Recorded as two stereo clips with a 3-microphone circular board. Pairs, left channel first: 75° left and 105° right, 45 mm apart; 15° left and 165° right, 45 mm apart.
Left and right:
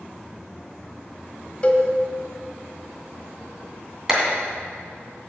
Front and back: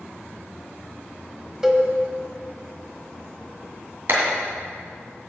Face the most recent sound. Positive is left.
turn(degrees=180)